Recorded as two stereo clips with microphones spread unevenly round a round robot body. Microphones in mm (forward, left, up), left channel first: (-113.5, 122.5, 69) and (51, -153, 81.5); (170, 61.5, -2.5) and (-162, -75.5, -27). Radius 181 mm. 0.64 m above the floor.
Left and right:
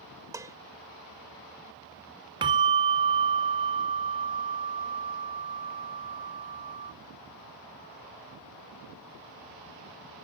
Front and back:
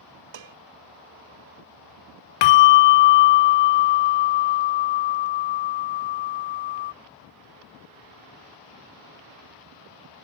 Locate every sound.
0.3 s dishes clattering: 140° right
2.4 s a bell: 15° left